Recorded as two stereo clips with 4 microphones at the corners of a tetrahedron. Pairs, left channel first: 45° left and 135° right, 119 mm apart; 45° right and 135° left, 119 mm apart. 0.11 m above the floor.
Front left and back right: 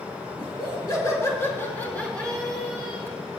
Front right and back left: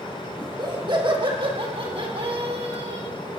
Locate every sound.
0.4 s laughter: 90° left, 3.5 m; by 3.1 s 145° left, 3.5 m